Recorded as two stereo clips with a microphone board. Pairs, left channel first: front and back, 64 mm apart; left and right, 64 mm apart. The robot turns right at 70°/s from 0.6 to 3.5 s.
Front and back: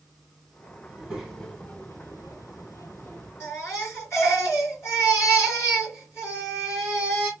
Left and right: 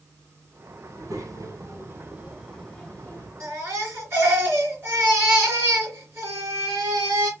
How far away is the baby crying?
About 3 m.